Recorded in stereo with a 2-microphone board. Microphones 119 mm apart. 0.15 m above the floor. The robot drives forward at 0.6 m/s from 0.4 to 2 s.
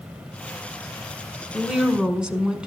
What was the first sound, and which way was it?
A woman speaking, 5° right (ahead or behind).